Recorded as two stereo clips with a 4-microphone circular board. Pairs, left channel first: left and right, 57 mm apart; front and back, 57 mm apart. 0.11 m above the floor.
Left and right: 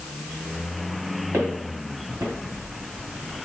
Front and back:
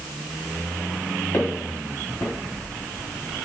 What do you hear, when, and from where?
1.3 s footsteps: 45° right, 2.5 m